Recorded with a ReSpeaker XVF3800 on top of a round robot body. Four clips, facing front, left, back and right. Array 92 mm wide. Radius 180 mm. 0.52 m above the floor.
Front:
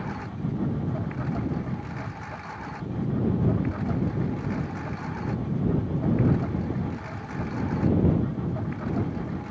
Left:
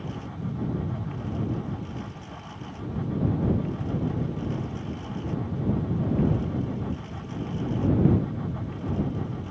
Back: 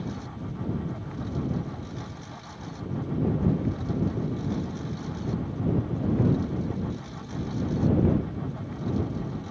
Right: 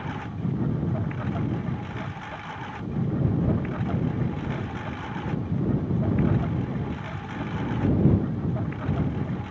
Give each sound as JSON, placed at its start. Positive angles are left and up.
{"t": 0.0, "sound": "a lawn mower", "azimuth_deg": -55}